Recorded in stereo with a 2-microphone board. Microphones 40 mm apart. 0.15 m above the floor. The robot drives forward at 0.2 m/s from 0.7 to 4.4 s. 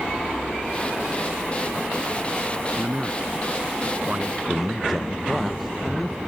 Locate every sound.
2.8 s a man speaking: 30° right (ahead or behind); by 4.4 s 25° right (ahead or behind)
4.5 s a man speaking: centre (ahead or behind)